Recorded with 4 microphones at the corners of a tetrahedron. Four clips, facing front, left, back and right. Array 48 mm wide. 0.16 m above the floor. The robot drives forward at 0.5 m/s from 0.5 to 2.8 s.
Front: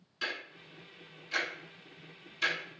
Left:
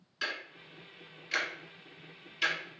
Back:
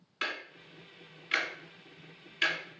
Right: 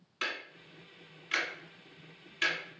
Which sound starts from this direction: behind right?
Ticking, at 0.2 s.